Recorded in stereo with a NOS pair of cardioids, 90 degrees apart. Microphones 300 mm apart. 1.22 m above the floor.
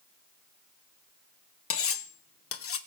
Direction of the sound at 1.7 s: 50° left.